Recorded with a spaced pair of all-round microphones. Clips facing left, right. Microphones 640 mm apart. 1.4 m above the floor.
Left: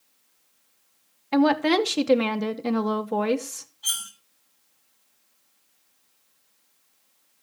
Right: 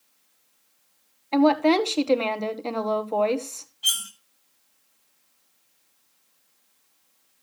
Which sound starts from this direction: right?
Cutlery clinking, at 3.8 s.